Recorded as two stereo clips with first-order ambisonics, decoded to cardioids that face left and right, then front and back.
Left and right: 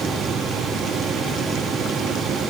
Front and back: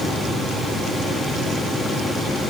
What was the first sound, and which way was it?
Only background noise.